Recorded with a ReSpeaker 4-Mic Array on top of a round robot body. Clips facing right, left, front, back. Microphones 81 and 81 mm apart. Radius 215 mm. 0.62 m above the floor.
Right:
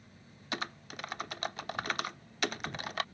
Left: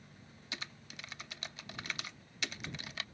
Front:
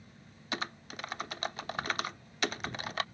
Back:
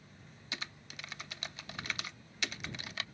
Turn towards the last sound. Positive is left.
turn(degrees=-45)